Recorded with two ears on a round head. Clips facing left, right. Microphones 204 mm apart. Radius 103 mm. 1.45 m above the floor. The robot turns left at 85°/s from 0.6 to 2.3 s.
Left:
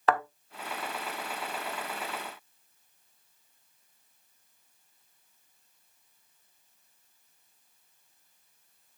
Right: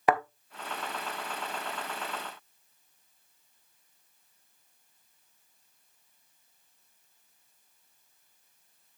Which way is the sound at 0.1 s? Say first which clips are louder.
Right 1 dB; 15° right (ahead or behind).